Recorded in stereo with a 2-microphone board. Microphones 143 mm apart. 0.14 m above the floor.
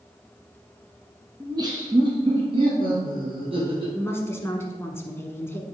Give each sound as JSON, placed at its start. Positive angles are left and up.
{"t": 1.4, "sound": "laughter", "side_deg": -25, "distance_m": 1.3}
{"t": 3.9, "sound": "a woman speaking", "side_deg": 15, "distance_m": 1.4}